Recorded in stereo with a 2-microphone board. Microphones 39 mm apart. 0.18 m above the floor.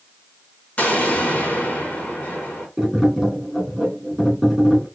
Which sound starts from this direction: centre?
Tapping, at 2.8 s.